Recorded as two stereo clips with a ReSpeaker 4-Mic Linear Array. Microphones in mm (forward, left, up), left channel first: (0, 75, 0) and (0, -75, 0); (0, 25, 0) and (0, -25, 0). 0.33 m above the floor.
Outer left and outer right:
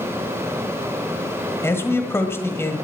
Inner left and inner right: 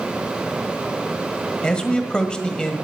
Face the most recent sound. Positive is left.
turn(degrees=15)  # may be behind; listen again after turning